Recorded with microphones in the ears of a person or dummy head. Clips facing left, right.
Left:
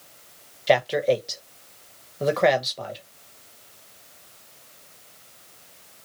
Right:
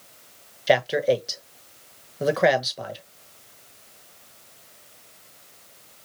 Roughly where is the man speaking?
Centre.